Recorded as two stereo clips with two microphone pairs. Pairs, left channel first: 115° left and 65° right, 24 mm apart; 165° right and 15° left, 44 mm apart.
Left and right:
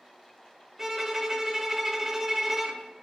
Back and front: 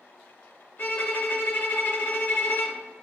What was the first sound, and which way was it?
A violin, 135° right.